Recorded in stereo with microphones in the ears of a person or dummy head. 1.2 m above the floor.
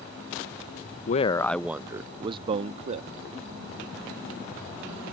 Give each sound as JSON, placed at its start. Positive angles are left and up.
{"t": 1.1, "sound": "a man speaking", "side_deg": 45}